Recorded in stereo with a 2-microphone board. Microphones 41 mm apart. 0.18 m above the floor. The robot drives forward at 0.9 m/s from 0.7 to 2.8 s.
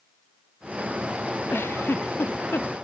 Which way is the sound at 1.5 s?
70° left (ahead or behind).